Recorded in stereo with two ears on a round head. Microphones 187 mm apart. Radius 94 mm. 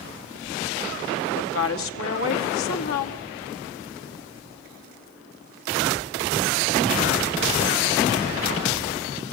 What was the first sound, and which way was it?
A woman speaking, 70° left (ahead or behind).